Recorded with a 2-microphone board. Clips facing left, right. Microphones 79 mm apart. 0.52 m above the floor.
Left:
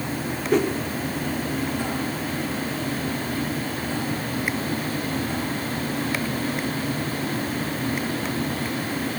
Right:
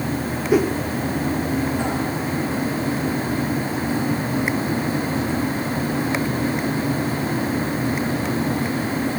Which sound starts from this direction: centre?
A whoosh, at 0.5 s.